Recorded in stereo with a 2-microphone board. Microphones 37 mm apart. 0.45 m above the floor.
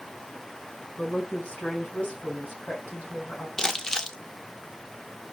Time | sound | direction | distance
1.0 | a woman speaking | 40° left (ahead or behind) | 4 m
3.6 | crumpling | 15° left (ahead or behind) | 0.6 m